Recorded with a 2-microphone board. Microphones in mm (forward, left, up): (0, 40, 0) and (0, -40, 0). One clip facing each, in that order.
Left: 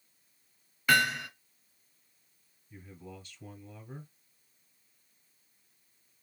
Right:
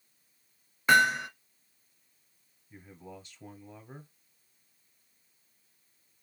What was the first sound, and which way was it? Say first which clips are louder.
Hammering: right 4 dB; 30° right (ahead or behind).